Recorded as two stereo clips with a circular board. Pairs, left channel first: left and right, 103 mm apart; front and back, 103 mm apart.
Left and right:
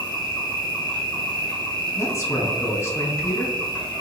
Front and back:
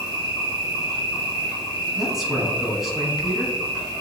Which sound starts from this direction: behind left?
An insect, at 0.0 s.